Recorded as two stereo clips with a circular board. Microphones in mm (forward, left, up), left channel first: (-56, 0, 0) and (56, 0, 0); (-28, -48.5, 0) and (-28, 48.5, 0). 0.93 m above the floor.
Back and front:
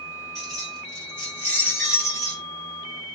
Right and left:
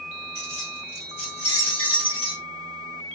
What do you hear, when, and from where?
0.3 s keys jangling: 90° right, 2 m; by 2.4 s 130° right, 1.4 m